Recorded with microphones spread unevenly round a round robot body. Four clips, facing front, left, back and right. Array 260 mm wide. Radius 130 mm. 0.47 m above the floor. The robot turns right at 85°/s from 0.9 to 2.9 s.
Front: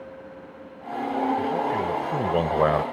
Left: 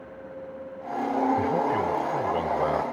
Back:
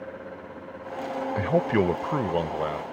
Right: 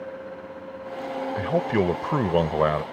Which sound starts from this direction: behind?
A man speaking, at 1.4 s.